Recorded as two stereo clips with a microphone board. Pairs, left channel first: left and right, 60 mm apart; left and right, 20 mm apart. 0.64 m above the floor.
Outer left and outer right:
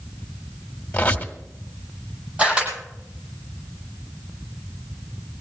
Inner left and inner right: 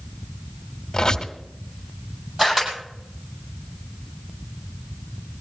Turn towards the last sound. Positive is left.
turn(degrees=-25)  # may be behind; listen again after turning